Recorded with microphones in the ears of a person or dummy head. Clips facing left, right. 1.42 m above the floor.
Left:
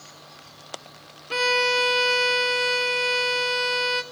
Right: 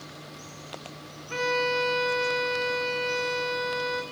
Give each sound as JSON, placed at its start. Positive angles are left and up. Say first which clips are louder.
{"t": 1.3, "sound": "a violin", "louder": "left 2 dB", "side_deg": 50, "distance_m": 1.2}